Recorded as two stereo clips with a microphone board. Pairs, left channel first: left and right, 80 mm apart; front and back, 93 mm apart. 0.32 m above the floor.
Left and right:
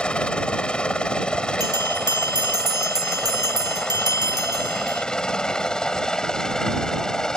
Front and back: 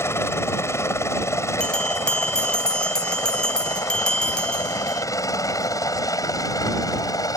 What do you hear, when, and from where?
0.0 s a helicopter: 25° left; by 7.4 s 10° left
1.6 s a bell: 80° right